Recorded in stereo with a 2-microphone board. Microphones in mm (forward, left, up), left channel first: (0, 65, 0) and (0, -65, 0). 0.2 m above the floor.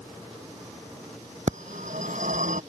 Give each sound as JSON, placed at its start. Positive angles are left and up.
{"t": 1.5, "sound": "a phone ringing", "side_deg": -75}